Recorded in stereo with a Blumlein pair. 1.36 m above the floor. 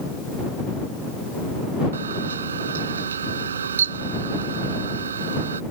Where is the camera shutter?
65° right.